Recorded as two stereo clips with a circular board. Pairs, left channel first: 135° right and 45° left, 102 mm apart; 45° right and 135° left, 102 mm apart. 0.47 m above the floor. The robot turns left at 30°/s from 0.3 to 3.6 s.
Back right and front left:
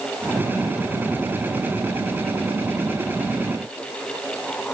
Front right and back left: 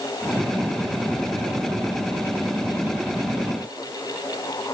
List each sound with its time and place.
Only background noise.